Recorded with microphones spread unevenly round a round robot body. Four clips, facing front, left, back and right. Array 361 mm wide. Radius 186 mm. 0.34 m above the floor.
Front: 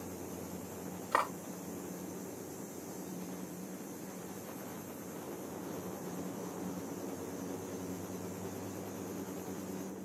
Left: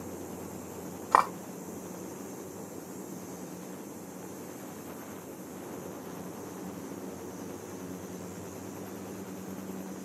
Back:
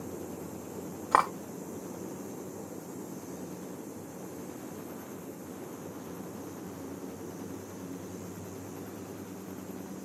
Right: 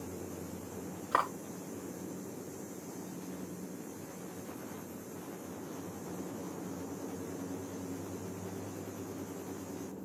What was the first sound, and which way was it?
Cutlery clinking, 135° left.